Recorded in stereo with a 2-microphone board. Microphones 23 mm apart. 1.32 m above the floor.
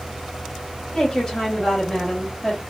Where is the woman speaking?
35° left (ahead or behind), 1.8 m; by 2.6 s 5° left (ahead or behind), 1.2 m.